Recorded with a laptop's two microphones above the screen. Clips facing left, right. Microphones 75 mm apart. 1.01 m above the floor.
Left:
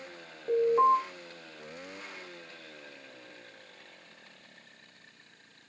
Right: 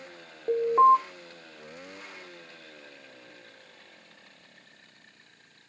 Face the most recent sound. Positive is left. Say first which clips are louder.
# right 4 dB
turn(degrees=-25)  # may be behind; listen again after turning